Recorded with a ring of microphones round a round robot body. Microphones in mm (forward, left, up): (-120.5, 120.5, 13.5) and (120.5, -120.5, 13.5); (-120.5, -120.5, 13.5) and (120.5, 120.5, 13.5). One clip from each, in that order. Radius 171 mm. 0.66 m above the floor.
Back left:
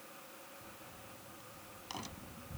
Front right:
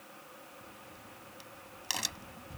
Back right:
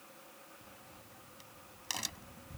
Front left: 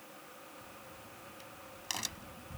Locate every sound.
0.6 s a crack: 50° right